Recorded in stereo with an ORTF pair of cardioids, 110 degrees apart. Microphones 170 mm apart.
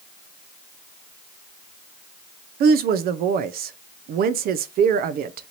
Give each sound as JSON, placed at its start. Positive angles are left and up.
{"t": 2.6, "sound": "a woman speaking", "azimuth_deg": -60, "distance_m": 0.6}